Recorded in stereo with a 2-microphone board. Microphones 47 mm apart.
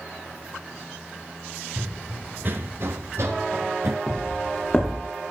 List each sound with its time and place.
1.8 s running footsteps: 25° right (ahead or behind), 1.3 m; by 4.0 s 65° right (ahead or behind), 1.8 m
4.1 s footsteps: 15° left (ahead or behind), 6 m; by 5.1 s 10° left (ahead or behind), 6.5 m